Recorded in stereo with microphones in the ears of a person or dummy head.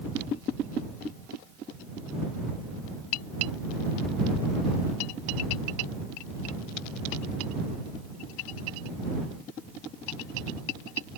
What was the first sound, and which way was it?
Only background noise.